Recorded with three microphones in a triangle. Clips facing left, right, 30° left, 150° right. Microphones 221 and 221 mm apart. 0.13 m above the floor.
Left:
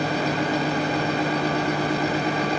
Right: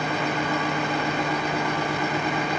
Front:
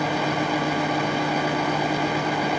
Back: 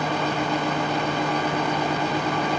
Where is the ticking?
I don't hear ticking.